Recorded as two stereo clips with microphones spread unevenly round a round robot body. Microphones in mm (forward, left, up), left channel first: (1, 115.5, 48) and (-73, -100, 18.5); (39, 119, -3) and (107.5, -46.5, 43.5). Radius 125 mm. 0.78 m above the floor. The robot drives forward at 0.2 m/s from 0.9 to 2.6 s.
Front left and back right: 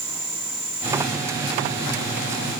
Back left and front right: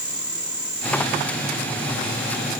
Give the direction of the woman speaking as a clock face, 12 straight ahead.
No woman speaking in this recording.